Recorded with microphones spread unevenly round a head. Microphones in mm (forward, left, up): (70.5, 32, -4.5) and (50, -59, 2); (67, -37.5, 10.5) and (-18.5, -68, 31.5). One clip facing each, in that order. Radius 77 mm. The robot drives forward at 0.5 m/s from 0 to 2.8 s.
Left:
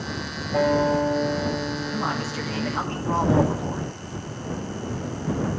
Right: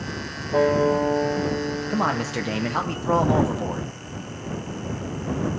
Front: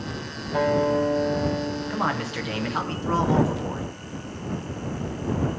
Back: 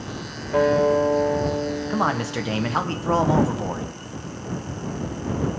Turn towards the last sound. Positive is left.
turn(degrees=-130)